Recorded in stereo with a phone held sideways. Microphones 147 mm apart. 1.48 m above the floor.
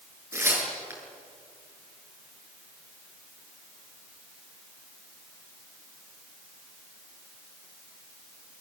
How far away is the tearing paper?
About 7.5 m.